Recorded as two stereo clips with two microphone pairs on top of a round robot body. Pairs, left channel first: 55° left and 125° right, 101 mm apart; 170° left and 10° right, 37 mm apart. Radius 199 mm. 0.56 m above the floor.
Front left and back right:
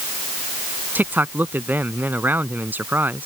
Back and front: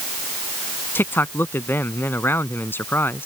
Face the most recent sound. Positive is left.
turn(degrees=160)